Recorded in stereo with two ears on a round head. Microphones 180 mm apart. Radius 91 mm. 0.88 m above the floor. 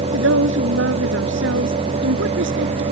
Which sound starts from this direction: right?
A woman speaking, at 0.1 s.